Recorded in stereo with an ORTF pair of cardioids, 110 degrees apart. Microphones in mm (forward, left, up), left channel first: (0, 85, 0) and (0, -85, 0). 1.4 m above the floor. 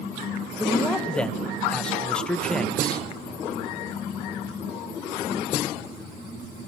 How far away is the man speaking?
About 1.6 m.